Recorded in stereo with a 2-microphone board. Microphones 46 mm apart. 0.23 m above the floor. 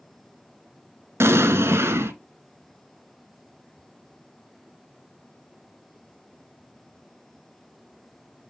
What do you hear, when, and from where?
1.2 s an explosion: 65° right (ahead or behind), 1.3 m